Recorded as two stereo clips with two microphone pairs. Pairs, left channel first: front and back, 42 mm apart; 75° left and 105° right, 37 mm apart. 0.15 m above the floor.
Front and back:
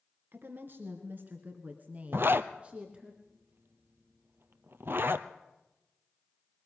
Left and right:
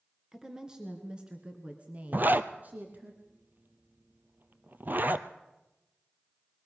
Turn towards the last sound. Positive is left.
turn(degrees=-145)